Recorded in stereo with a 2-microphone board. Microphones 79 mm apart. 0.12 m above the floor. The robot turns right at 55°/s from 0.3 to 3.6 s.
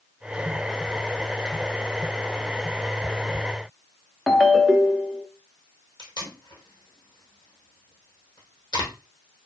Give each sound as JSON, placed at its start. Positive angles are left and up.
{"t": 4.3, "sound": "a ringtone", "side_deg": 0, "distance_m": 0.6}
{"t": 6.0, "sound": "tape being pulled", "side_deg": 65, "distance_m": 1.9}